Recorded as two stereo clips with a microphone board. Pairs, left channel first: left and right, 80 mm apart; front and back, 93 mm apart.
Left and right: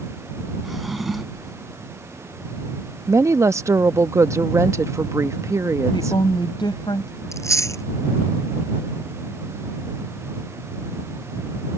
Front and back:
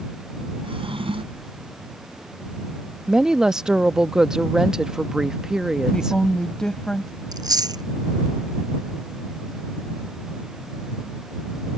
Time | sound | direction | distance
0.6 | a drawer | straight behind | ?
3.1 | a woman speaking | 100° right | ?
5.9 | a woman speaking | 85° left | ?
7.3 | chewing | 140° left | ?